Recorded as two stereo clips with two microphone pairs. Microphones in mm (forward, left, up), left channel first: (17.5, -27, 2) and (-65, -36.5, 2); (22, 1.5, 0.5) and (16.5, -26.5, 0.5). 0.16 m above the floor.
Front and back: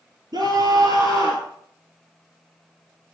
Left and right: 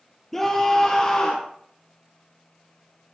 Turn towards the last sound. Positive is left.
turn(degrees=135)